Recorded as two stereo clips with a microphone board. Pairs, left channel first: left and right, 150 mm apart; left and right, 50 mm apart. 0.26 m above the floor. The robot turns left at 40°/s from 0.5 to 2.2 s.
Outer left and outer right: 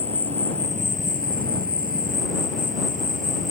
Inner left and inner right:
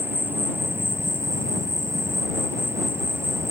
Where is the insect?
45° right; by 3.5 s 115° right.